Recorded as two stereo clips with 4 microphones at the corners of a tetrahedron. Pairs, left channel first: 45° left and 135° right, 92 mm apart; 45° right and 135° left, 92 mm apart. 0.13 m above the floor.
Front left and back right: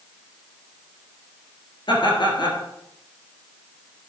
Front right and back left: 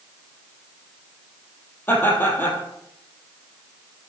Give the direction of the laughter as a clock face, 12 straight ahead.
11 o'clock.